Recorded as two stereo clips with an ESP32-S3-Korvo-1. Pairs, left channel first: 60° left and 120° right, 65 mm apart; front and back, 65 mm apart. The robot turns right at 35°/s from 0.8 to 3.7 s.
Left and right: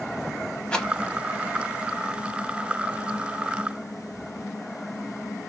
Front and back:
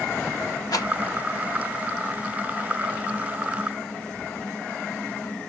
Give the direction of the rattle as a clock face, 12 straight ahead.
1 o'clock.